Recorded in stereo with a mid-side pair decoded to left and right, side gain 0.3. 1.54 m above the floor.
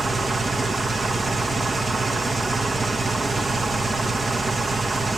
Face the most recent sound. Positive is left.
turn(degrees=-50)